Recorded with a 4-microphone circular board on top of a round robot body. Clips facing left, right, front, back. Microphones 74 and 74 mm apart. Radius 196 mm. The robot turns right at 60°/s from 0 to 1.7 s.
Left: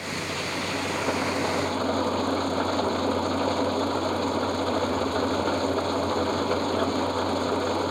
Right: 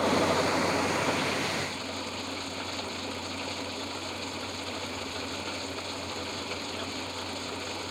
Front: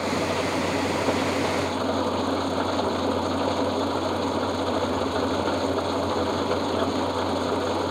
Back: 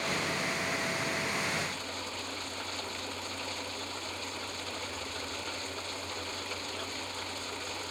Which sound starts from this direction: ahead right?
An engine running, at 0.0 s.